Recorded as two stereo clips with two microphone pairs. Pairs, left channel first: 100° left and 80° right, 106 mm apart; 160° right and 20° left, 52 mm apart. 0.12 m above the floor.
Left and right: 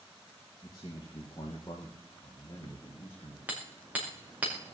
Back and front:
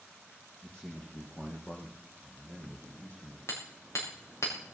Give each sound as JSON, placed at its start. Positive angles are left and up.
{"t": 0.6, "sound": "a man speaking", "azimuth_deg": 135, "distance_m": 3.0}
{"t": 3.5, "sound": "hammering", "azimuth_deg": -155, "distance_m": 5.5}